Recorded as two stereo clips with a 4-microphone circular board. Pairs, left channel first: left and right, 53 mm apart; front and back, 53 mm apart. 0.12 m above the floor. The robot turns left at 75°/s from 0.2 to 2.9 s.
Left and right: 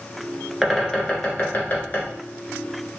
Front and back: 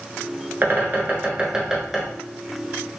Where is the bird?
165° right, 1.3 m; by 2.1 s 80° left, 1.3 m.